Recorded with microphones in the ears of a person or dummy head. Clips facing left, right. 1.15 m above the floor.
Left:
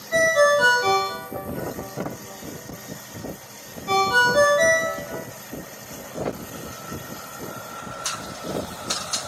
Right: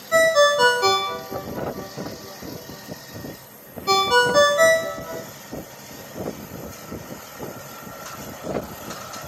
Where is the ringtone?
65° right (ahead or behind), 0.6 m.